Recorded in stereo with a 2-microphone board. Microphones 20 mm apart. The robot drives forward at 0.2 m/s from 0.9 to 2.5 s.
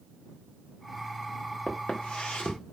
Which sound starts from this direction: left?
Footsteps, at 1.7 s.